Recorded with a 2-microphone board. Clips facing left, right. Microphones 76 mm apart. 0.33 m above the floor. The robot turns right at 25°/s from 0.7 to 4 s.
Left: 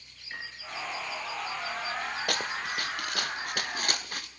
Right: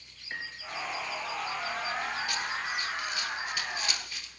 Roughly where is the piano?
Right.